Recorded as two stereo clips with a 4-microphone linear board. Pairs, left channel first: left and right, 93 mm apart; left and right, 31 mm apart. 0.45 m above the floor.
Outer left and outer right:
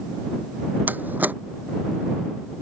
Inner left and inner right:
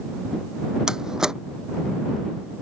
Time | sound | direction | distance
0.9 | a door slam | 20° right (ahead or behind) | ?